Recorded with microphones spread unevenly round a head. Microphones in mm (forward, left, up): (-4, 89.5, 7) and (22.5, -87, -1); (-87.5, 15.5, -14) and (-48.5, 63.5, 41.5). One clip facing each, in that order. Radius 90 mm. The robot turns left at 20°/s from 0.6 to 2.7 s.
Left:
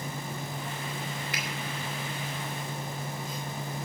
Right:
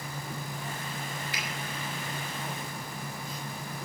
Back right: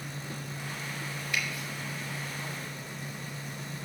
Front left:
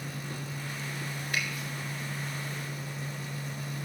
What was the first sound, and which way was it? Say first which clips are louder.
A finger snap: left 2 dB, even; 65° left.